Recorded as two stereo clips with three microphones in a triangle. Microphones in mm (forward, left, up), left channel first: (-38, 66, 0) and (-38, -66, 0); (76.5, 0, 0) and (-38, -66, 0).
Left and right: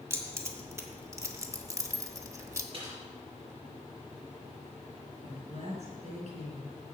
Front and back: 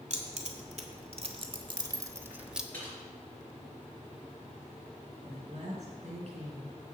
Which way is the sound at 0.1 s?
155° right.